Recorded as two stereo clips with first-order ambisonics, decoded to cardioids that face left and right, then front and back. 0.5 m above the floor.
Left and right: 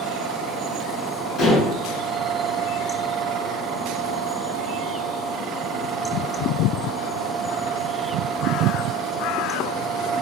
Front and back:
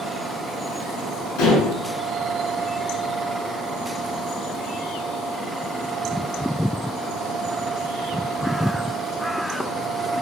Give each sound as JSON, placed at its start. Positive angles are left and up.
{"t": 1.4, "sound": "dishes clattering", "azimuth_deg": 30, "distance_m": 3.5}